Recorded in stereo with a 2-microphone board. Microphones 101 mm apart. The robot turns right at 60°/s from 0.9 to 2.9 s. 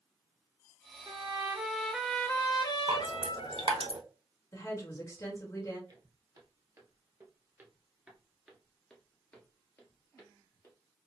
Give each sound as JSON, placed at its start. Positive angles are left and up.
{"t": 1.1, "sound": "a trumpet", "azimuth_deg": -50, "distance_m": 0.5}
{"t": 2.9, "sound": "dripping", "side_deg": -60, "distance_m": 1.0}
{"t": 4.5, "sound": "a woman speaking", "side_deg": 30, "distance_m": 1.6}
{"t": 5.9, "sound": "footsteps", "side_deg": -40, "distance_m": 1.8}